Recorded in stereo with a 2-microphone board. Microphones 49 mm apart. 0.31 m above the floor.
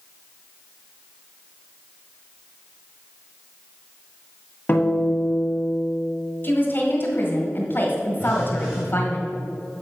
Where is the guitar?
40° left (ahead or behind), 1.4 m.